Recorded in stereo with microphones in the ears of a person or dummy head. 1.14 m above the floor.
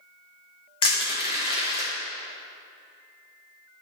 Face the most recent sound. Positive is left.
turn(degrees=25)  # may be behind; listen again after turning